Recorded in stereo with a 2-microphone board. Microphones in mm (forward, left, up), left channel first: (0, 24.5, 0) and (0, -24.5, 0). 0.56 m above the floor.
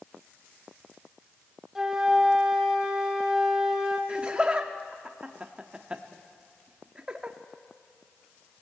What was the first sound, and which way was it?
A flute, 10° right (ahead or behind).